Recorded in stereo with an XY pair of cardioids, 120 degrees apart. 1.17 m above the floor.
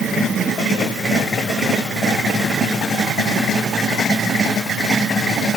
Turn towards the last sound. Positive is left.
No sound to turn to.